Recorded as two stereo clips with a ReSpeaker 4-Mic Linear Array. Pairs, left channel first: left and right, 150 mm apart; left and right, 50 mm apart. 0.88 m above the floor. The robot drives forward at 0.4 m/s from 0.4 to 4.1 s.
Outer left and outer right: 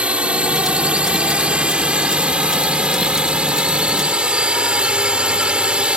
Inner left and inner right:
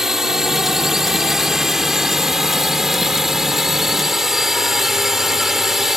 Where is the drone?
5° right (ahead or behind).